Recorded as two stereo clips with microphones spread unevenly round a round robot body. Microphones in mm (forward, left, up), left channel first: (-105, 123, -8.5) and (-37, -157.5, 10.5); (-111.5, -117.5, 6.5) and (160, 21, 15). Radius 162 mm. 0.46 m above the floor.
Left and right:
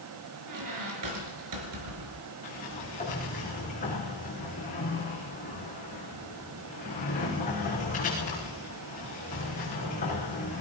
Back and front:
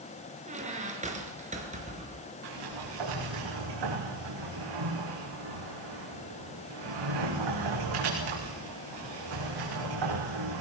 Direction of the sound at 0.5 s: 40° right.